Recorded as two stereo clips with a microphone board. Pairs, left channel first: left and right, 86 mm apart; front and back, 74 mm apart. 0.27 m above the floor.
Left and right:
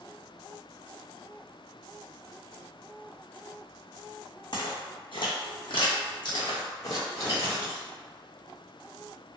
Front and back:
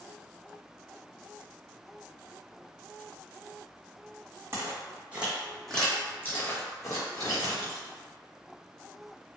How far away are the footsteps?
About 1.0 m.